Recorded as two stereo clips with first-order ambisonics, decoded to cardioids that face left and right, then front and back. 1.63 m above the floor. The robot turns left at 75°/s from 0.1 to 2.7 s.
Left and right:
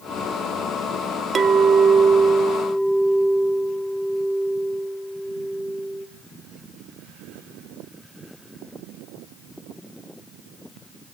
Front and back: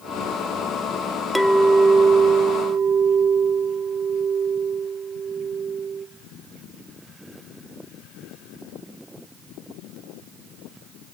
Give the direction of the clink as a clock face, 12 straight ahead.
3 o'clock.